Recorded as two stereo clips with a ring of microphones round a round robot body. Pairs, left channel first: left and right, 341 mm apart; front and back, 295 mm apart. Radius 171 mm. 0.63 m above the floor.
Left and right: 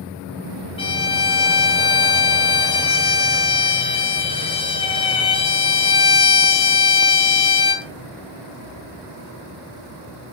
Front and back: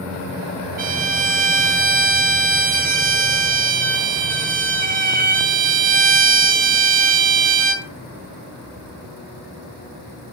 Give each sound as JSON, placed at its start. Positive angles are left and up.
{"t": 0.8, "sound": "a violin", "azimuth_deg": 150, "distance_m": 0.9}